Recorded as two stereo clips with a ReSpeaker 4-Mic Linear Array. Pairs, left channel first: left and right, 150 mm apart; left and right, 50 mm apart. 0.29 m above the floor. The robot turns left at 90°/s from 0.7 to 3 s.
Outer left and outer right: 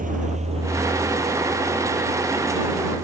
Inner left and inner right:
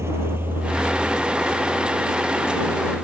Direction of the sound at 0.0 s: 60° right (ahead or behind).